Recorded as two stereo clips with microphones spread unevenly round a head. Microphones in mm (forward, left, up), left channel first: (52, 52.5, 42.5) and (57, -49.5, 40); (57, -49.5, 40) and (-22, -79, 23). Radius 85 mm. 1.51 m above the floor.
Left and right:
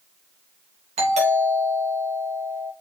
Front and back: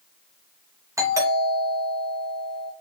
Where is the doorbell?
110° right, 3 m.